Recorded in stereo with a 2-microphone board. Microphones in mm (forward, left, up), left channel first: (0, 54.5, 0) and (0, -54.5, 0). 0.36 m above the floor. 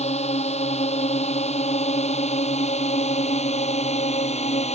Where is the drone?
80° left.